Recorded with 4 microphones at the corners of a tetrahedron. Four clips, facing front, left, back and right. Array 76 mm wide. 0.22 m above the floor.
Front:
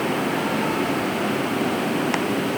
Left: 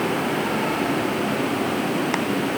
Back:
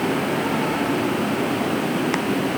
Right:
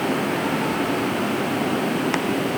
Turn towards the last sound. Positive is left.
No sound to turn to.